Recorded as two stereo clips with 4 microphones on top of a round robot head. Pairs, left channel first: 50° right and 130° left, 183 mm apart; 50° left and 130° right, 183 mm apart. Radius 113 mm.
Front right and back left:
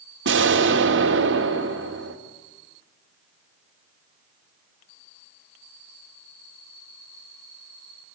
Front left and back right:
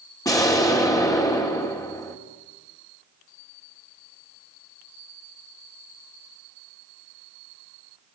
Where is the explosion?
120° left, 2.5 m.